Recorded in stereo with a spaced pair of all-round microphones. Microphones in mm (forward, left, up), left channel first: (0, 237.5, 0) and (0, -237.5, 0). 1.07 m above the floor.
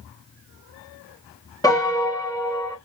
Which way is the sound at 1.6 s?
10° left (ahead or behind).